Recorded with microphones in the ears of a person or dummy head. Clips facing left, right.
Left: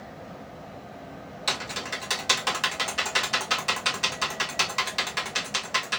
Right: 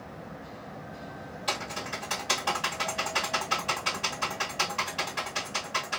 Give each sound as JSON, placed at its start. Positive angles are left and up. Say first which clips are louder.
{"t": 1.5, "sound": "typing on a keyboard", "louder": "even", "side_deg": 70, "distance_m": 1.8}